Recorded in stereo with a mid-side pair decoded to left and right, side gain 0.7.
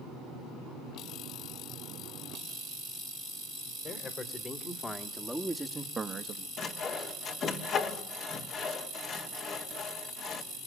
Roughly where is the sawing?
Ahead left.